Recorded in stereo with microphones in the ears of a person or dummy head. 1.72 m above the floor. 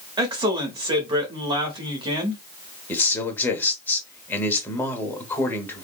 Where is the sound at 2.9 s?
10° left (ahead or behind), 0.8 m.